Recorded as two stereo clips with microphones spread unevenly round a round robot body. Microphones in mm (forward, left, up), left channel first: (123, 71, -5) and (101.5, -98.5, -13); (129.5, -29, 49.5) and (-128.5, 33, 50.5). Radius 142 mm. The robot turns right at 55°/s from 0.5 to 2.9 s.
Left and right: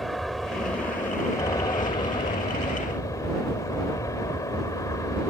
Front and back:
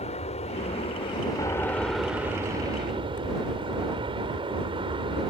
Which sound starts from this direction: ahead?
An aircraft, at 0.0 s.